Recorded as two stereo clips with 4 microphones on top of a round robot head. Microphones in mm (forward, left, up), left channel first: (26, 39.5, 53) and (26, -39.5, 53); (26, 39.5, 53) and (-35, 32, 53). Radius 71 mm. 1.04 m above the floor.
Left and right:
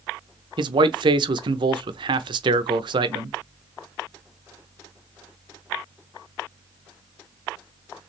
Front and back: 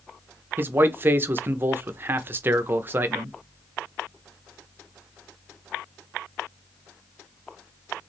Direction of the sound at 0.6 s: 115° right.